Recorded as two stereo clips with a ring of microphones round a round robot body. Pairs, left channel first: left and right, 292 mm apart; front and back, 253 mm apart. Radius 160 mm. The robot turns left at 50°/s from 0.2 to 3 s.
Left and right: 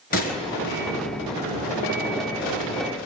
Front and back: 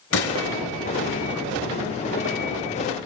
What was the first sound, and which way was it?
A gunshot, 30° left.